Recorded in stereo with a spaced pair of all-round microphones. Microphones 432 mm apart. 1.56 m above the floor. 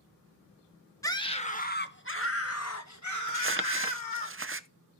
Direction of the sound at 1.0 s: 5° left (ahead or behind).